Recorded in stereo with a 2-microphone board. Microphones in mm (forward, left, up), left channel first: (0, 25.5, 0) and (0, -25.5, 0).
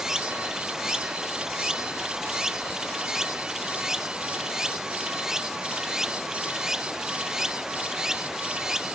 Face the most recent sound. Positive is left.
turn(degrees=-10)  # may be behind; listen again after turning